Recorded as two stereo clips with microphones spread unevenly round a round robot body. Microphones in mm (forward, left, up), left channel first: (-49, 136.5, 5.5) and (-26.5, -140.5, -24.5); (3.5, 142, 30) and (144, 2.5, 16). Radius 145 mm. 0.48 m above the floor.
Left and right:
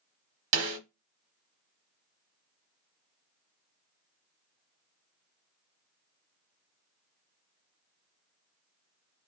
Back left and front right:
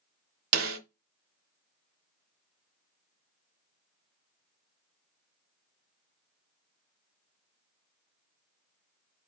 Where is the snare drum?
35° right, 0.8 m.